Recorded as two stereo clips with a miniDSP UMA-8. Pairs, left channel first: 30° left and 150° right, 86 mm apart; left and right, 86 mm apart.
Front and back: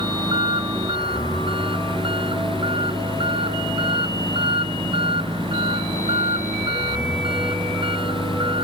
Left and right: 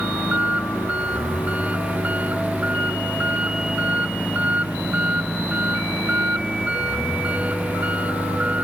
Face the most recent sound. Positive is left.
turn(degrees=-165)